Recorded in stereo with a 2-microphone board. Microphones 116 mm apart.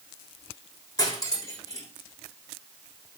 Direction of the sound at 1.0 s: 30° left (ahead or behind).